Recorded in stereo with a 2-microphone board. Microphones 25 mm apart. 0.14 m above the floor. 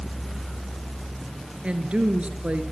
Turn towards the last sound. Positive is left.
turn(degrees=-55)  # may be behind; listen again after turning